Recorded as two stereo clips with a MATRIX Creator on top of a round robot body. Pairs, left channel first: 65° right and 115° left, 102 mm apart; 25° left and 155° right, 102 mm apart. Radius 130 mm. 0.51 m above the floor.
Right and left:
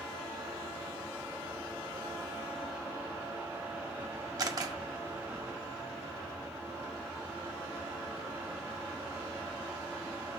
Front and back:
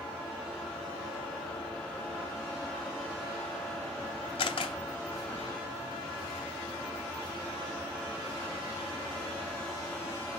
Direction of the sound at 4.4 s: 60° left.